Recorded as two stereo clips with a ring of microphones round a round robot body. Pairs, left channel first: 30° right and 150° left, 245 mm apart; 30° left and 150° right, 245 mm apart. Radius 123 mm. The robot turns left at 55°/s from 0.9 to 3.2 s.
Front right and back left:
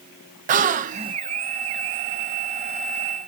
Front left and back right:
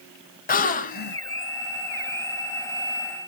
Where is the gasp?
90° left, 0.5 m; by 1.2 s 75° left, 0.5 m.